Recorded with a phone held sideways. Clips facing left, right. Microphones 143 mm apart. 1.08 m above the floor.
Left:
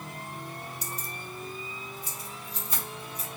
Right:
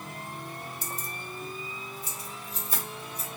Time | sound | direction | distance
0.8 | keys jangling | 55° right (ahead or behind) | 0.7 m